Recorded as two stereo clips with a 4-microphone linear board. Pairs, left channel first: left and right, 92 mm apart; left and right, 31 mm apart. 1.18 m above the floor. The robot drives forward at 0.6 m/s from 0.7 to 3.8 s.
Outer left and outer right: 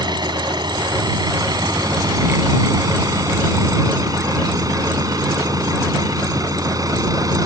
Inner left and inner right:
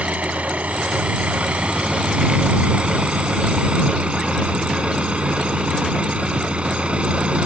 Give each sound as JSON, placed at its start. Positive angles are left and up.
{"t": 0.0, "sound": "an engine running", "side_deg": -55}